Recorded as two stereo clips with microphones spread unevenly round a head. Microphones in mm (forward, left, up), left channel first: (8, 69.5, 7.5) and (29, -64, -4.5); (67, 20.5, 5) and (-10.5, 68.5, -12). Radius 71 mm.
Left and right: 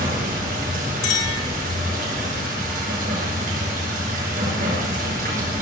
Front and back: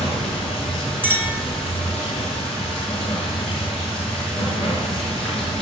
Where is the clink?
80° left, 4 m.